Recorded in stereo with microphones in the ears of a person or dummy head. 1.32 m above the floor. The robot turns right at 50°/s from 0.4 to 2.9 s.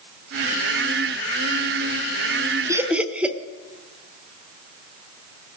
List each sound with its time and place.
2.7 s laughter: 25° right (ahead or behind), 1.0 m; by 3.4 s 15° right (ahead or behind), 1.0 m